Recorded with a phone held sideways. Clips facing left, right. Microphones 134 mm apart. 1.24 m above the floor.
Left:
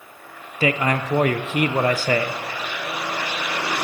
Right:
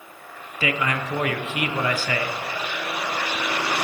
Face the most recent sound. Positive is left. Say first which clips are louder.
# left 4 dB
turn(degrees=40)  # may be behind; listen again after turning